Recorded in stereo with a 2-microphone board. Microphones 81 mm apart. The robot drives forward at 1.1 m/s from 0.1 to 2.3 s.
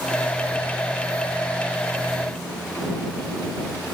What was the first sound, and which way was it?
Only background noise.